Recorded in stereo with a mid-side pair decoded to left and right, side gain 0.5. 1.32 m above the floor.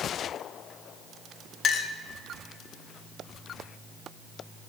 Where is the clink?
50° left, 0.5 m.